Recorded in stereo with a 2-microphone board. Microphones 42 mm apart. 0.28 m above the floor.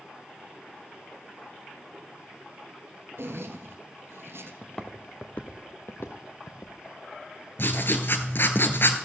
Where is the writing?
60° left (ahead or behind), 1.1 m.